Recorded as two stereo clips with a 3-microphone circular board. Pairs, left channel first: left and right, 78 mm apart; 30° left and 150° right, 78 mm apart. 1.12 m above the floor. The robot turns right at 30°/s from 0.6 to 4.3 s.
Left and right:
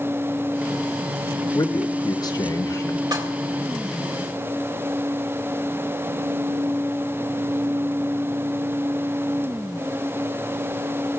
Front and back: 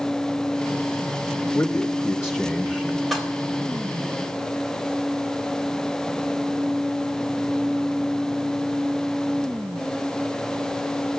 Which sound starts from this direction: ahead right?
Dishes clattering, at 3.1 s.